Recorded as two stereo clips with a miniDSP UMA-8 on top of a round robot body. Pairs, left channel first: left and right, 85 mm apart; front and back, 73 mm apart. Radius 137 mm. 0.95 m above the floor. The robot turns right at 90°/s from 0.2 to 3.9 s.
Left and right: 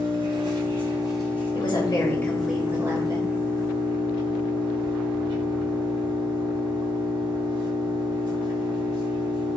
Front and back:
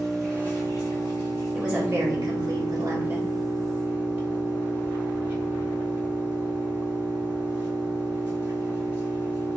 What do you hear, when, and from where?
0.0 s an engine running: 85° right, 1.5 m; by 9.6 s 115° right, 1.5 m
1.5 s a woman speaking: 90° left, 1.0 m; by 3.3 s 115° right, 1.0 m